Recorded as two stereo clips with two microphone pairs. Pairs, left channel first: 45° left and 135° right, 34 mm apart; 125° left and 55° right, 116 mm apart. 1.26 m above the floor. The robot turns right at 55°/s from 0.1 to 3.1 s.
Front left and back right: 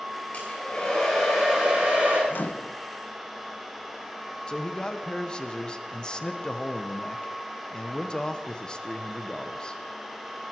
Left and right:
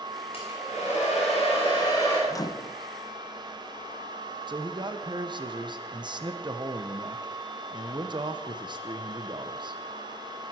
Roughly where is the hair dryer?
Left.